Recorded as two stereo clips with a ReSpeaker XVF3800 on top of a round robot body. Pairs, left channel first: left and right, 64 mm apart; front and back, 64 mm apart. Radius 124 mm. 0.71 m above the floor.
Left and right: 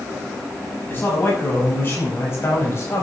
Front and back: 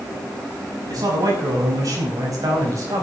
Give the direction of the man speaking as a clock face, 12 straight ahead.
7 o'clock.